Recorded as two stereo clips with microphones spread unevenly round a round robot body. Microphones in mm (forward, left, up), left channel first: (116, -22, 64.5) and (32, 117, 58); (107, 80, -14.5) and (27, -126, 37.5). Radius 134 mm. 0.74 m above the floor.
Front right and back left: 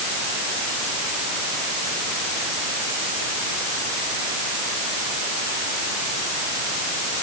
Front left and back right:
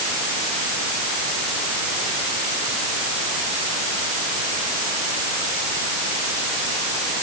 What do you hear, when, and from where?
Only background noise.